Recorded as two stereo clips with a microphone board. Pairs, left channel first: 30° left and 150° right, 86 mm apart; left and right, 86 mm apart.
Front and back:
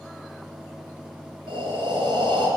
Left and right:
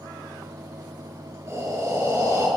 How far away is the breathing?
About 3 m.